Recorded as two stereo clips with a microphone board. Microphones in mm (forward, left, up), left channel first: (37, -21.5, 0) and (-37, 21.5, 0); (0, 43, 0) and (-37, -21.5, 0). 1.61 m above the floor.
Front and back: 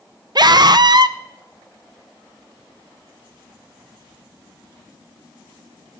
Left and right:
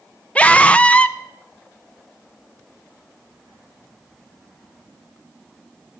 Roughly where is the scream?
Behind left.